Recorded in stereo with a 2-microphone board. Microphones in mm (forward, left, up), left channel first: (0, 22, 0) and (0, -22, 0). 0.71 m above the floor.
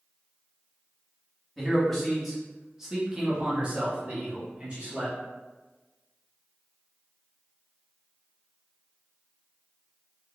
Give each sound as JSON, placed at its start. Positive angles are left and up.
{"t": 1.6, "sound": "a man speaking", "side_deg": 10, "distance_m": 1.3}